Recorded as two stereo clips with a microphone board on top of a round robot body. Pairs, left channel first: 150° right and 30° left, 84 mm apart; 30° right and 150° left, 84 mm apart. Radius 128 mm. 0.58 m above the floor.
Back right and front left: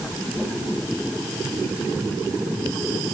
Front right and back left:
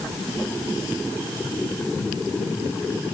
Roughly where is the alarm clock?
I don't hear an alarm clock.